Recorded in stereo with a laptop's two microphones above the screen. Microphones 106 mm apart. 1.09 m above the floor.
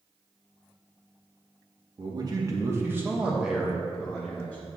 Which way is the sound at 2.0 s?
45° right (ahead or behind).